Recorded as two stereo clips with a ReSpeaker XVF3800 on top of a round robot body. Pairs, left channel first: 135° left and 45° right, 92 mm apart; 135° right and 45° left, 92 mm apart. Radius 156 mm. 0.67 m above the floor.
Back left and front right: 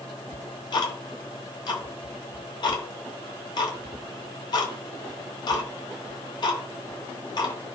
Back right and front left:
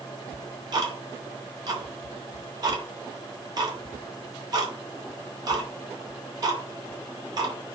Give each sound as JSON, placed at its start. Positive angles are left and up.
{"t": 0.3, "sound": "ticking", "azimuth_deg": 90, "distance_m": 0.7}